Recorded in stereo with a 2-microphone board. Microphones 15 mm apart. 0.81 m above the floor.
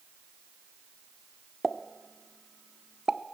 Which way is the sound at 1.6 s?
35° right (ahead or behind).